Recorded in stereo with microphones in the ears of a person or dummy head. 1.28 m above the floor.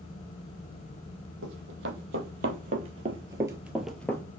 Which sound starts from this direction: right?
Running footsteps, at 1.4 s.